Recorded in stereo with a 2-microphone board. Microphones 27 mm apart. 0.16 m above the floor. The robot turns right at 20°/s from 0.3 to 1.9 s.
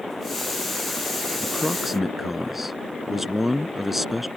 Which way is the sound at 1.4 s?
Centre (ahead or behind).